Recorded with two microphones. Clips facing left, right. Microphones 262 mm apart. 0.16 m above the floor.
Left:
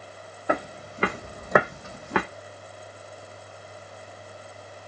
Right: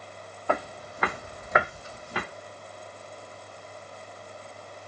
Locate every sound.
0.5 s footsteps: 15° left (ahead or behind), 0.9 m; by 2.2 s 75° left (ahead or behind), 0.6 m